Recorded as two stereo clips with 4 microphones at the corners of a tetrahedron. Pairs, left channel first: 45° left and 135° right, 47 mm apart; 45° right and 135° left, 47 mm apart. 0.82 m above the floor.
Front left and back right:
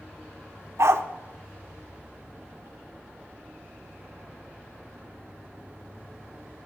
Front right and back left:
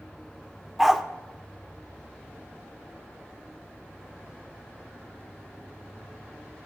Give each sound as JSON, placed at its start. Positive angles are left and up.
{"t": 0.8, "sound": "a dog barking", "azimuth_deg": -135, "distance_m": 0.7}